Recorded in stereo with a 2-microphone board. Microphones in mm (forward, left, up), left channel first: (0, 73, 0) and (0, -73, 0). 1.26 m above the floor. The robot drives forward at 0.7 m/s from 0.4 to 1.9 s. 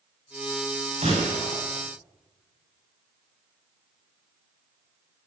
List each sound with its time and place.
1.0 s a gunshot: 55° right (ahead or behind), 9.5 m; by 1.6 s 50° right (ahead or behind), 9.5 m